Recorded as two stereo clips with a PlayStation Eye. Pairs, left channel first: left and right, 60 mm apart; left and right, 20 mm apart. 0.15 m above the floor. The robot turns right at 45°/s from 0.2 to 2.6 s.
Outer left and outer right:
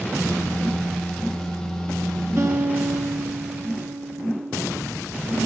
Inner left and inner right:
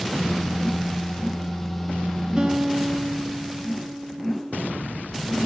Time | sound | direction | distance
2.4 | a guitar | 45° right (ahead or behind) | 2 m